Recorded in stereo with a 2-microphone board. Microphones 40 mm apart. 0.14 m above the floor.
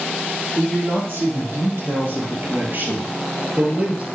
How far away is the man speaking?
About 4.5 m.